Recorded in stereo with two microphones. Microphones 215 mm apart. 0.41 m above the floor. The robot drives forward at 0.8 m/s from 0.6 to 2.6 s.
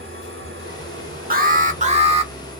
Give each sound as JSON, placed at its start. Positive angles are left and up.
{"t": 0.0, "sound": "an engine running", "side_deg": -75, "distance_m": 1.2}
{"t": 1.3, "sound": "an alarm", "side_deg": -45, "distance_m": 0.8}